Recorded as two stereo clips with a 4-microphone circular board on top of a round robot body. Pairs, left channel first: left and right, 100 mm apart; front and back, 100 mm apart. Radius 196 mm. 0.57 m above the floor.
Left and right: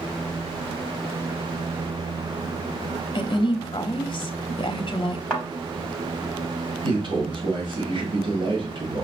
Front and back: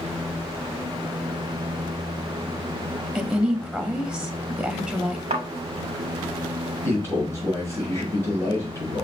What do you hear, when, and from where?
3.1 s a woman speaking: 95° left, 0.8 m
5.3 s a thud: straight behind, 0.6 m
6.8 s a man speaking: 60° right, 2.5 m